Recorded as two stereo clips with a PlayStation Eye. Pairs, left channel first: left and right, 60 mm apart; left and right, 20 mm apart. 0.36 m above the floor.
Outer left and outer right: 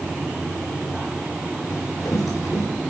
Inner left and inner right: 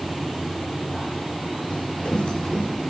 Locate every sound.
1.7 s running footsteps: 65° left (ahead or behind), 6.5 m